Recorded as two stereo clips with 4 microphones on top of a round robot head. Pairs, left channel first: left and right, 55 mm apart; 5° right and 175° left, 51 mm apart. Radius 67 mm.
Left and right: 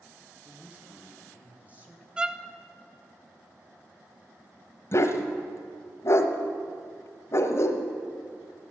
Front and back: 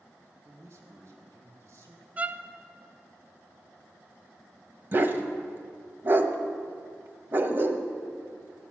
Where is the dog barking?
130° left, 1.0 m.